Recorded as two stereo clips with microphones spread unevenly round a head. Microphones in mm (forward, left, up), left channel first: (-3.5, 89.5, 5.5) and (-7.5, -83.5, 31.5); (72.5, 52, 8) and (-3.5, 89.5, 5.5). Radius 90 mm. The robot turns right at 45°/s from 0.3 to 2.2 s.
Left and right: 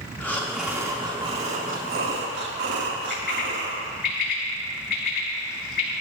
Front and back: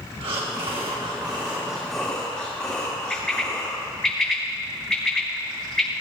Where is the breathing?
175° left, 1.7 m; by 3.9 s 100° right, 1.7 m.